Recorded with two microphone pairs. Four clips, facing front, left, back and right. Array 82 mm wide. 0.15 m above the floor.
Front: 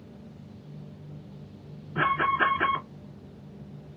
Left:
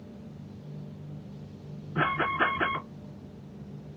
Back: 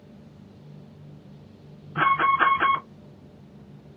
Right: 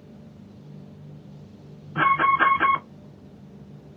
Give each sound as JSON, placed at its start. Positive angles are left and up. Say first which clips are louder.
{"t": 1.9, "sound": "an alarm", "louder": "right 8 dB, back 4 dB", "azimuth_deg": -135, "distance_m": 2.5}